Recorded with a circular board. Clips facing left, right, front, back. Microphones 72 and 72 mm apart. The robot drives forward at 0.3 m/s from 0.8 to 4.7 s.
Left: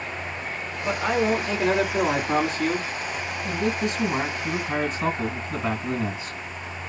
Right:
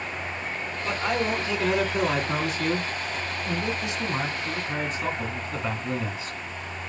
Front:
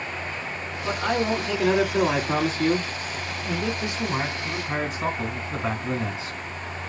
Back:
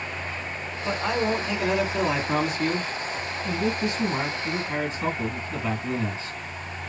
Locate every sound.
0.8 s a man speaking: 45° left, 2.5 m; by 6.4 s 75° left, 1.9 m